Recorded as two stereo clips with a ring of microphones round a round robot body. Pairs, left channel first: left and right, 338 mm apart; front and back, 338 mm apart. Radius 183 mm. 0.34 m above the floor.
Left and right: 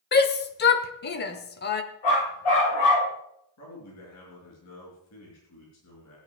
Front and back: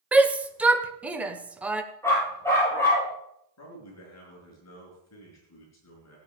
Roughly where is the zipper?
I don't hear a zipper.